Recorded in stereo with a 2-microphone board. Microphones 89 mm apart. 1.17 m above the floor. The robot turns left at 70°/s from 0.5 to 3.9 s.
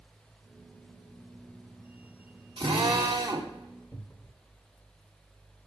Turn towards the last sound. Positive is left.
turn(degrees=40)  # may be behind; listen again after turning